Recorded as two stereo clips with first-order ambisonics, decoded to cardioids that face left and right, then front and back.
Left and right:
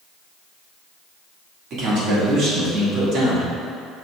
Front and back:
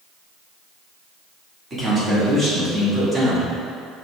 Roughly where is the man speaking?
Right.